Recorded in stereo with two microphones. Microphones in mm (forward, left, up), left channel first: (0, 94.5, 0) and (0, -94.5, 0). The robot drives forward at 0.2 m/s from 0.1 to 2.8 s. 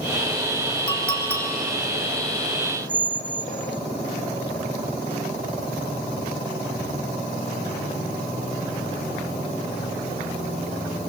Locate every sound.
0.9 s a clink: 75° right (ahead or behind), 4 m
2.9 s a squeak: 40° left (ahead or behind), 2.5 m